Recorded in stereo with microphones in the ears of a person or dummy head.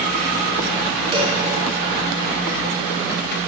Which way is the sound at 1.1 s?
30° right (ahead or behind).